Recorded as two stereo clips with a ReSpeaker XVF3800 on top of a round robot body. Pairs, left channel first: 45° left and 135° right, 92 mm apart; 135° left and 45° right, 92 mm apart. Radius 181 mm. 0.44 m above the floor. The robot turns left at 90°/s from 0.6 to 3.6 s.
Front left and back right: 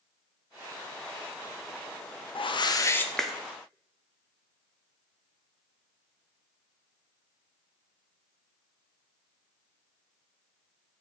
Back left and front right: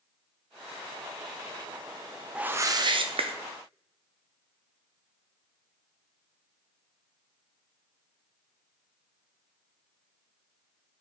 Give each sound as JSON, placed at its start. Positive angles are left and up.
{"t": 2.4, "sound": "a whoosh", "azimuth_deg": 35, "distance_m": 0.5}